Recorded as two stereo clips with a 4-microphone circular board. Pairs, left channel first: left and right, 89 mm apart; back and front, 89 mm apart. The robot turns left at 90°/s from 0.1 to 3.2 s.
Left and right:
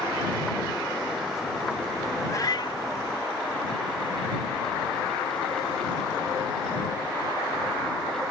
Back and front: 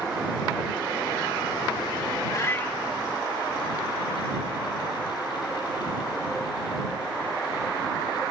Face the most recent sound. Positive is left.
turn(degrees=60)